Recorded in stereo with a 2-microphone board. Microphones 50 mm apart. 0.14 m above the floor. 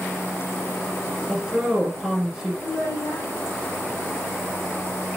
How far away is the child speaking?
About 2.5 m.